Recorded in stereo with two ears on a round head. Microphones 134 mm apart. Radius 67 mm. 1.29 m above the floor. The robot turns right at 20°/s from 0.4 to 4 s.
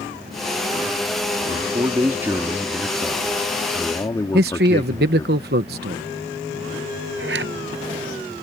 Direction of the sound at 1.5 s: 30° right.